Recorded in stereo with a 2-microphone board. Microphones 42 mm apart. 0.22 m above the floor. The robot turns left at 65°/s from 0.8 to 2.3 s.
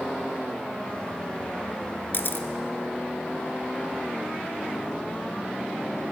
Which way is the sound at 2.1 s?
55° left (ahead or behind).